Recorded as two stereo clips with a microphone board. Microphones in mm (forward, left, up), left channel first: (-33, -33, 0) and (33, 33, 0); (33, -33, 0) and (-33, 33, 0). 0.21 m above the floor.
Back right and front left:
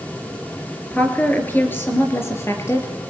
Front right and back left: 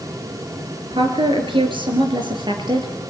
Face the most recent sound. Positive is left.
turn(degrees=170)